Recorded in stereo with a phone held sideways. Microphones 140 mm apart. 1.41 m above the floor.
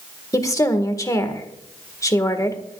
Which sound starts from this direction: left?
A woman speaking, at 0.3 s.